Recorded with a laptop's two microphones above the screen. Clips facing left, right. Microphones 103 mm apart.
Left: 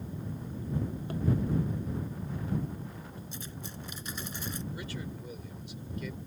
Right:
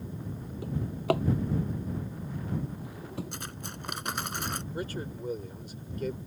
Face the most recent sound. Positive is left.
turn(degrees=-45)  # may be behind; listen again after turning